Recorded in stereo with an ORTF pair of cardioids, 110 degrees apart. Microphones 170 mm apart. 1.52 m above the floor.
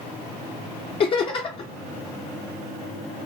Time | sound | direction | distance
1.0 | laughter | 35° left | 0.6 m